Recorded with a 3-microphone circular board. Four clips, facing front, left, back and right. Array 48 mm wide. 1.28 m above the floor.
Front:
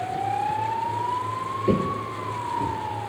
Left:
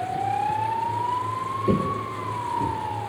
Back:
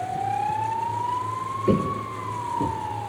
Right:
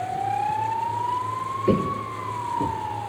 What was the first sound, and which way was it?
Footsteps, 90° right.